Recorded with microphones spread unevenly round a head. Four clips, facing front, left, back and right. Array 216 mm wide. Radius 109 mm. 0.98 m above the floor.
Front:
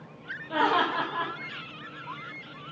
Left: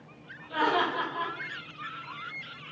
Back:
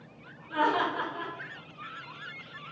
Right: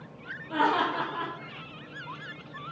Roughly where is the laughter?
Ahead right.